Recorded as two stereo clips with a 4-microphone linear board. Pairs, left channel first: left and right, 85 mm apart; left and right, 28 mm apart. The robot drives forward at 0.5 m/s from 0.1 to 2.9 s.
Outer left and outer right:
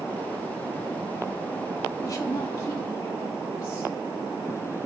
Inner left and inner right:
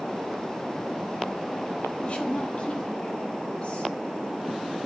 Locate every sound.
2.0 s a woman speaking: 40° left (ahead or behind), 1.8 m; by 4.0 s 35° left (ahead or behind), 2 m